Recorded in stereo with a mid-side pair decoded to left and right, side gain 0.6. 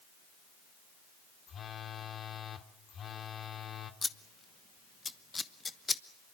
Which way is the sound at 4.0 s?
20° left.